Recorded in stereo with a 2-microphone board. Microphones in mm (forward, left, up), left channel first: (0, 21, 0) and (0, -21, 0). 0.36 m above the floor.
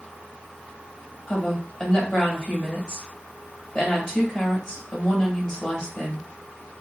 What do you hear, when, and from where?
1.3 s a woman speaking: 20° left (ahead or behind), 1.7 m